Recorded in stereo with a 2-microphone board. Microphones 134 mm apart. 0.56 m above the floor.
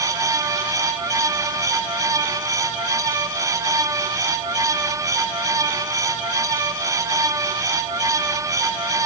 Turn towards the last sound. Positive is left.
No sound to turn to.